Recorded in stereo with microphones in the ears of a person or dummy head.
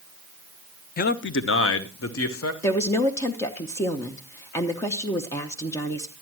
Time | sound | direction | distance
1.0 | a man speaking | 35° left (ahead or behind) | 0.5 m
2.6 | a woman speaking | 20° left (ahead or behind) | 0.9 m